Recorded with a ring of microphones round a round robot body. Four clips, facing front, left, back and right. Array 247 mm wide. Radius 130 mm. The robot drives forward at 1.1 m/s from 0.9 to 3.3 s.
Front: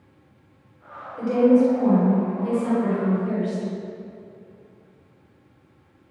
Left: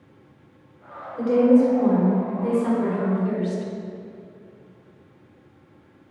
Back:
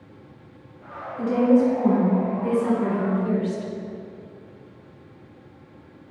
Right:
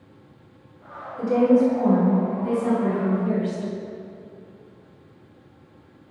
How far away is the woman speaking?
About 2.5 m.